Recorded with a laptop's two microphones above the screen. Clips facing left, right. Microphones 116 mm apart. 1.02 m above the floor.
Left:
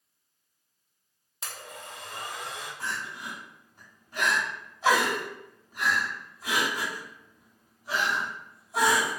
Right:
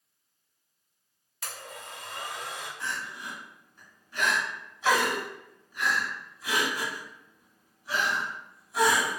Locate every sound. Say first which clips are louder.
1.4 s a blender: even; 25° left (ahead or behind), 0.8 m
2.8 s crying: left 2 dB; 45° left (ahead or behind), 1.1 m